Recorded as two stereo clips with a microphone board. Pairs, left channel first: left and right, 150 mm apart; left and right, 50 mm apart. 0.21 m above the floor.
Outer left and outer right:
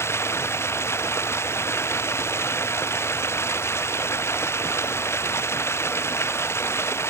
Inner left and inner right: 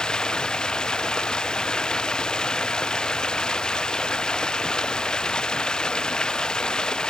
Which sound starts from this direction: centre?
Running water, at 0.0 s.